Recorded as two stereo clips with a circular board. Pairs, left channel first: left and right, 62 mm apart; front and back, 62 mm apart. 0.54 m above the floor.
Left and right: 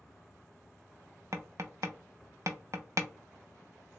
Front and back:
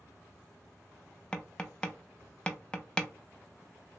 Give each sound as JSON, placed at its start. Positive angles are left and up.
{"t": 1.3, "sound": "tapping", "azimuth_deg": -70, "distance_m": 0.5}